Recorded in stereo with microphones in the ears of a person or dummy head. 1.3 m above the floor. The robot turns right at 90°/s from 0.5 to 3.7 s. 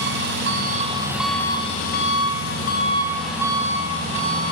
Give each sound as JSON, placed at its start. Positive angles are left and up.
{"t": 0.0, "sound": "an engine running", "azimuth_deg": -75, "distance_m": 3.0}